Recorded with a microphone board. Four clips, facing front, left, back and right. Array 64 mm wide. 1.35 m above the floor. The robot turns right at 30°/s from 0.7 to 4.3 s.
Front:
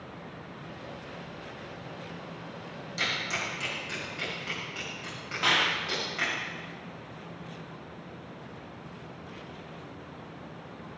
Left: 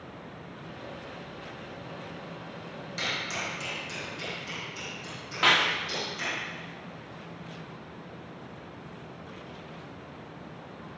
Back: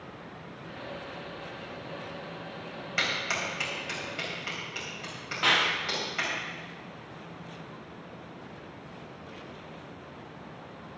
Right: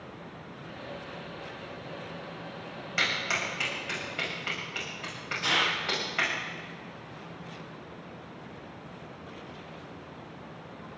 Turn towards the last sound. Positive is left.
turn(degrees=95)